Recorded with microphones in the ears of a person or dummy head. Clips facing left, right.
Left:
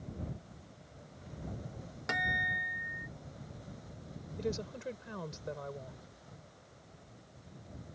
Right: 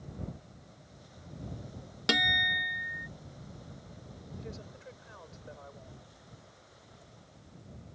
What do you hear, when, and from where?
2.1 s a guitar: 45° right (ahead or behind)
4.4 s a woman speaking: 55° left (ahead or behind)